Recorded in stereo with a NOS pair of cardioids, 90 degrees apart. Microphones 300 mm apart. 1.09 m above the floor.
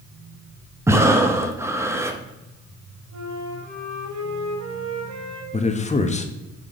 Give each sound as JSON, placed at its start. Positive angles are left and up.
{"t": 0.9, "sound": "breathing", "azimuth_deg": -10, "distance_m": 0.9}
{"t": 3.1, "sound": "a flute", "azimuth_deg": -65, "distance_m": 2.5}
{"t": 5.5, "sound": "a man speaking", "azimuth_deg": 25, "distance_m": 1.1}